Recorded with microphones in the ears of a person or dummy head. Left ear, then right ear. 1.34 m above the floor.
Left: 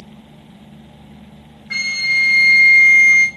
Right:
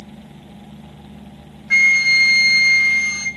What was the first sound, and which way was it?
A flute, 10° right (ahead or behind).